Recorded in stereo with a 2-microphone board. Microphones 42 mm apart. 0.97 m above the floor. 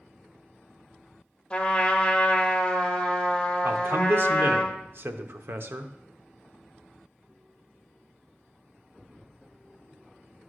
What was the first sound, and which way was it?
A trumpet, 20° left (ahead or behind).